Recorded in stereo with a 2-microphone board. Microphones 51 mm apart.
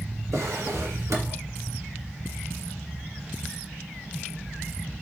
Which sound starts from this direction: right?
A drawer, at 0.3 s.